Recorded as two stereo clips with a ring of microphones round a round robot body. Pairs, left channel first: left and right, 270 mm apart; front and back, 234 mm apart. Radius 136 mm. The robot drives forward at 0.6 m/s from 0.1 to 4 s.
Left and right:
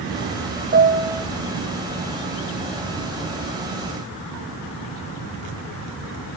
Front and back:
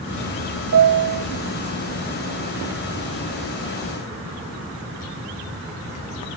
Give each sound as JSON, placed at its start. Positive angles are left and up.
{"t": 0.7, "sound": "a piano", "azimuth_deg": -150, "distance_m": 0.6}